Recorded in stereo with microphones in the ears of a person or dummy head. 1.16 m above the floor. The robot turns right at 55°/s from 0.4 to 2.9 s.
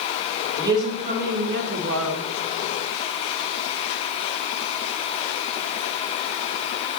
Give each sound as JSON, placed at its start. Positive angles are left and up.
{"t": 0.6, "sound": "a woman speaking", "azimuth_deg": -170, "distance_m": 1.8}